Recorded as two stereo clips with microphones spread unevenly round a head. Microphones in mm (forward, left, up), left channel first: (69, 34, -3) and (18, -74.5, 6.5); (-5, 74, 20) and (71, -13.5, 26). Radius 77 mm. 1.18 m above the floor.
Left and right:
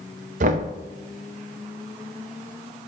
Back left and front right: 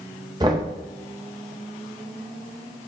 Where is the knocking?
115° right, 0.6 m.